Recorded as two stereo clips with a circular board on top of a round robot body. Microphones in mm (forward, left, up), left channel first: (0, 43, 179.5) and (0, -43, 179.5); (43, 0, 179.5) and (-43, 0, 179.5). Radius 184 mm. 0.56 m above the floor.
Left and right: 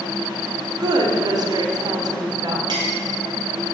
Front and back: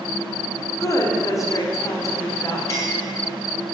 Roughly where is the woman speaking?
Ahead right.